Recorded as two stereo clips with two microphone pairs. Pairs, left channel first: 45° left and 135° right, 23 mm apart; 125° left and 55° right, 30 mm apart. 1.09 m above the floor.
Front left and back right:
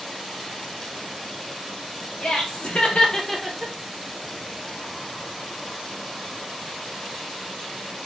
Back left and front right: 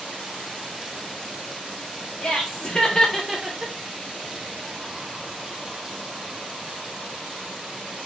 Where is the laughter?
70° left, 1.4 m; by 3.7 s 90° right, 0.7 m.